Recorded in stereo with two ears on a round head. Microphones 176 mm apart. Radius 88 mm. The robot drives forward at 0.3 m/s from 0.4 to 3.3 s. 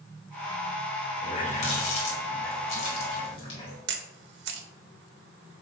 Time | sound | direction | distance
1.2 | a running tap | 40° left (ahead or behind) | 1.4 m
3.9 | a camera shutter | 60° right (ahead or behind) | 0.7 m